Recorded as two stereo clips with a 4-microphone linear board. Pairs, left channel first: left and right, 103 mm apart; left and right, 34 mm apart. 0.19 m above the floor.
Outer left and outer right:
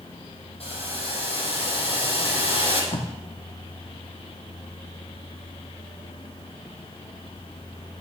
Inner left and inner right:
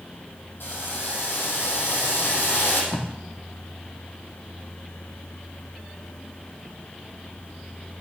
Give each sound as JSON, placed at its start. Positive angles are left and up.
{"t": 0.6, "sound": "boiling", "side_deg": 65, "distance_m": 7.5}
{"t": 2.9, "sound": "tape being pulled", "side_deg": 65, "distance_m": 2.0}